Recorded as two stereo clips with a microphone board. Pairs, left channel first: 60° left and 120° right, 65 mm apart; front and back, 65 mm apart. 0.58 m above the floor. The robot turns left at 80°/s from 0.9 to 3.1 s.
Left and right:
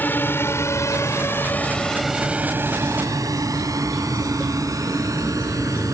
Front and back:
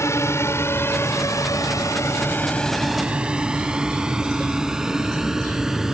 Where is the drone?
10° left; by 6.0 s 95° right.